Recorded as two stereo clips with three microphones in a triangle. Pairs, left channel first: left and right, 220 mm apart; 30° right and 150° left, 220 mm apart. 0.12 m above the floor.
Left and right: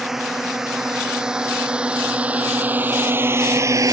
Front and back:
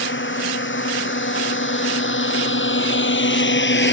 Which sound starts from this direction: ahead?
A drone, at 0.0 s.